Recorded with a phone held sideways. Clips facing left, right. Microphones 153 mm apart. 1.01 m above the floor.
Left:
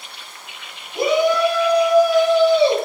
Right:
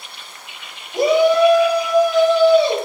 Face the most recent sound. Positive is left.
turn(degrees=30)  # may be behind; listen again after turning